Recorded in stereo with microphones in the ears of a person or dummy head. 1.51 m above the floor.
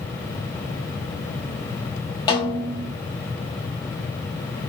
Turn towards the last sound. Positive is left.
turn(degrees=20)  # may be behind; listen again after turning